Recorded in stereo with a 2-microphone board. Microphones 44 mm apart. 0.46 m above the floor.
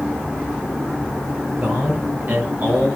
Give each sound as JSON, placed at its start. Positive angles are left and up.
{"t": 1.6, "sound": "a man speaking", "side_deg": -45, "distance_m": 9.5}